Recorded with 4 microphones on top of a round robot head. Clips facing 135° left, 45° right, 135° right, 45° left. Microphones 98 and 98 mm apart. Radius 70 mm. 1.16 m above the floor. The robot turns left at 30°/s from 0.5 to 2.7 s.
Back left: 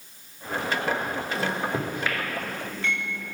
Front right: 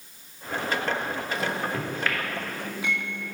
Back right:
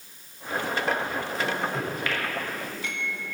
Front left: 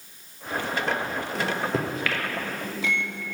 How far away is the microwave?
About 0.9 m.